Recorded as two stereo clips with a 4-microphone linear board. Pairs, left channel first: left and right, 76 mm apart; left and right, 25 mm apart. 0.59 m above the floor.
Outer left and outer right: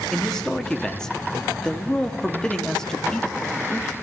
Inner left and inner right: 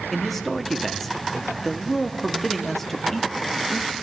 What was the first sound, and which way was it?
A man speaking, 10° left (ahead or behind).